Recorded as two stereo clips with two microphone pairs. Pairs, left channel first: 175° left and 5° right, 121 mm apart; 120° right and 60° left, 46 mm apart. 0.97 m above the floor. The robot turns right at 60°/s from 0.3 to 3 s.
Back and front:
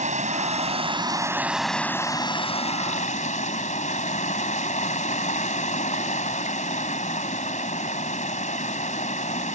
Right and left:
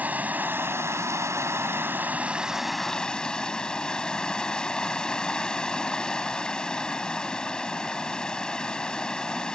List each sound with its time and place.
0.0 s running water: 5° left; by 9.6 s 170° left